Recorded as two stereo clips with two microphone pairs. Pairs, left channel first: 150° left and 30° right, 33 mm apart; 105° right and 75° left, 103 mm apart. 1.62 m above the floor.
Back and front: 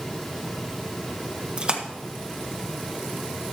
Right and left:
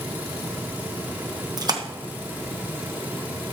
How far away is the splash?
About 1.3 m.